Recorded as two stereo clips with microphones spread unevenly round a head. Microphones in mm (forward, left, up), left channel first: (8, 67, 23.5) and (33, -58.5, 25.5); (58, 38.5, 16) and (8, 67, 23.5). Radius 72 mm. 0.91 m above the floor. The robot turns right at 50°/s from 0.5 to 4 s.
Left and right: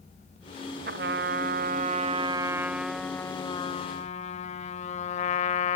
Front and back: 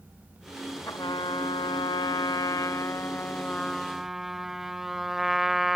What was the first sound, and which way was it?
A trumpet, 90° right.